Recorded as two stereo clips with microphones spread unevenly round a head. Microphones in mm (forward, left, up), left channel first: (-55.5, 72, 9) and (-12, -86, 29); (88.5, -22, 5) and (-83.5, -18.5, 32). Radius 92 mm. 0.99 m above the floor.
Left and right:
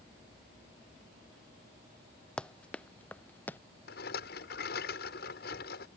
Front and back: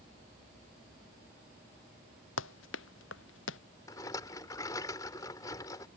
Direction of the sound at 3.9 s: 70° left.